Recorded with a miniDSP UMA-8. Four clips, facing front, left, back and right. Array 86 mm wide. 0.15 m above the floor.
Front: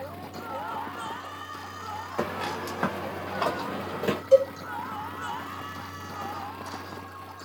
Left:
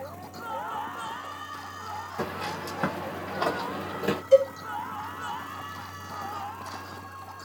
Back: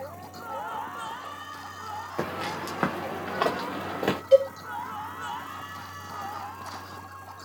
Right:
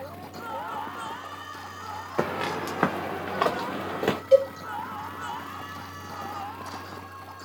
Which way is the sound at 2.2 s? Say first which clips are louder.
Right 7 dB, front 1 dB; 85° right.